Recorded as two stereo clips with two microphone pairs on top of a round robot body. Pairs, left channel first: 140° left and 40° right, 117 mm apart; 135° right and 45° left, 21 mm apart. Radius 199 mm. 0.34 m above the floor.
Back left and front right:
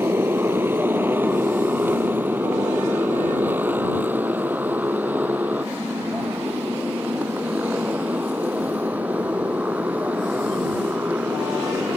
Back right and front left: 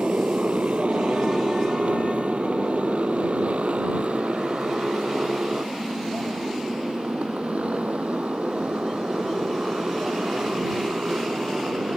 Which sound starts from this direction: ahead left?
A motorcycle, at 0.0 s.